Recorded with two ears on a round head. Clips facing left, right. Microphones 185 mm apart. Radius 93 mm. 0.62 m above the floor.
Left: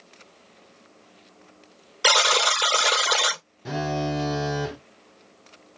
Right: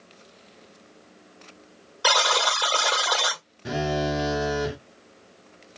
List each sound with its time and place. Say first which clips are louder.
2.0 s a buzzer: left 1 dB; 30° left (ahead or behind), 0.6 m
3.6 s a phone buzzing: right 1 dB; 10° right (ahead or behind), 0.6 m